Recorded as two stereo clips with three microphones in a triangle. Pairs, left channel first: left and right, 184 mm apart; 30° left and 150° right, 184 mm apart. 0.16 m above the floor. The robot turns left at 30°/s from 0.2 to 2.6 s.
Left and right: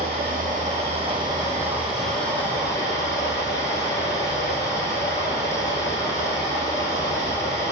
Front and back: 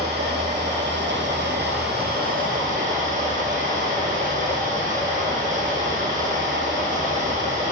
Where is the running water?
125° right, 6.5 m; by 7.7 s 165° left, 6.5 m.